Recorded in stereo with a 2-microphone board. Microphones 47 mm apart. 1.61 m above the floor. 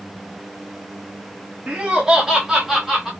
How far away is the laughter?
About 0.5 m.